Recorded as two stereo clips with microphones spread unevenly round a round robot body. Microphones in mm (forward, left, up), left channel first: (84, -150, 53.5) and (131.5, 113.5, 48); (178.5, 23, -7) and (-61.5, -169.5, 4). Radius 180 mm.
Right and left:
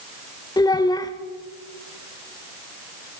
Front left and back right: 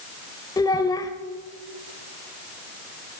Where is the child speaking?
30° right, 0.6 m.